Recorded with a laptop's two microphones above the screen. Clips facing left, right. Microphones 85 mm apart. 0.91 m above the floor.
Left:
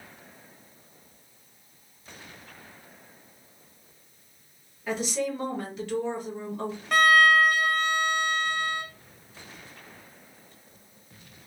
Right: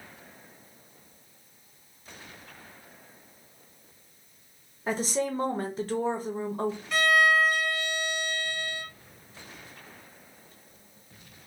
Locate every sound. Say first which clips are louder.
4.9 s a woman speaking: even; 35° right (ahead or behind), 0.9 m
6.9 s a violin: left 4 dB; 50° left (ahead or behind), 0.7 m